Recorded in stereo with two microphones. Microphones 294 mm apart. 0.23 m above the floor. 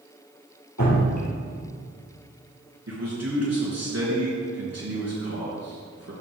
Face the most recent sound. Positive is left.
turn(degrees=-60)  # may be behind; listen again after turning